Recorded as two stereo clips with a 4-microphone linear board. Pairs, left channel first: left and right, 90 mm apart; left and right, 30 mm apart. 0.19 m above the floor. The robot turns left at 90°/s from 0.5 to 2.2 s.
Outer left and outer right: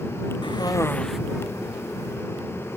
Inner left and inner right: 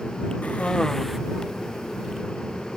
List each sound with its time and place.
0.4 s a cough: 60° left; by 1.2 s 5° right